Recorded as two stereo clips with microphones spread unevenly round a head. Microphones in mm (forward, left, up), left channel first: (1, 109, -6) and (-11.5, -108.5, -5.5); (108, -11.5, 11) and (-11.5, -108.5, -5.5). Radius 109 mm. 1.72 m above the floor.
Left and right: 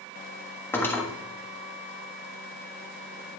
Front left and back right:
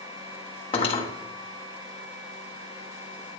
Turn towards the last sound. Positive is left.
turn(degrees=10)